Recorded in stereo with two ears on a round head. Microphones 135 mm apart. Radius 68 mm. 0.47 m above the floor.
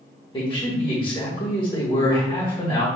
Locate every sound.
0.3 s a man speaking: 30° left (ahead or behind), 1.2 m